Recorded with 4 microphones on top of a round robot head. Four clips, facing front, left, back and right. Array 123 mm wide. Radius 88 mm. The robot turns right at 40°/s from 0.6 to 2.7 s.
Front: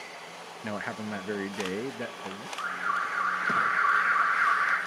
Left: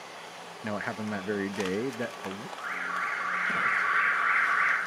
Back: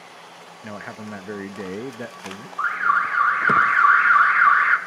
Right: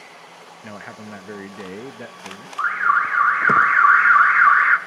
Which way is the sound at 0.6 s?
65° left.